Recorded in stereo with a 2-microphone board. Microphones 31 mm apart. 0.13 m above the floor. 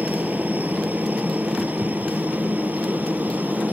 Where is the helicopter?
60° right (ahead or behind); by 3.7 s 65° right (ahead or behind).